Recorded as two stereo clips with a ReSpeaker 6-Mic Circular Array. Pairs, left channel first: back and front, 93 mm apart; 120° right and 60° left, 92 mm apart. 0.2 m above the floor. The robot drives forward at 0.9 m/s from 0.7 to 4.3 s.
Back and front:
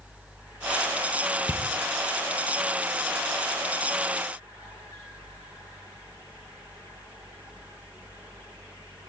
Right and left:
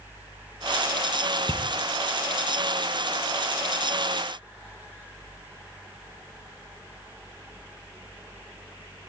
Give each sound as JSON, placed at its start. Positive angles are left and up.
{"t": 1.4, "sound": "a bicycle bell", "azimuth_deg": 175, "distance_m": 4.0}